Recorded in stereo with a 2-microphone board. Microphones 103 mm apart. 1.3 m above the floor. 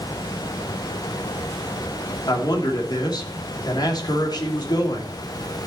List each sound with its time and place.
2.3 s a man speaking: 40° left (ahead or behind), 3 m